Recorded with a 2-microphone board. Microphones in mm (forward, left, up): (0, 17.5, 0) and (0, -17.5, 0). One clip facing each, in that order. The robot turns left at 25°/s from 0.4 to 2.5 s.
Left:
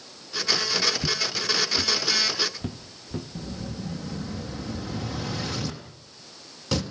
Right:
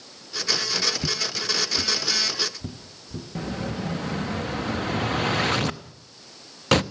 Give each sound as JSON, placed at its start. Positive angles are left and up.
{"t": 1.0, "sound": "footsteps", "side_deg": -15, "distance_m": 0.9}
{"t": 3.4, "sound": "an explosion", "side_deg": -60, "distance_m": 0.9}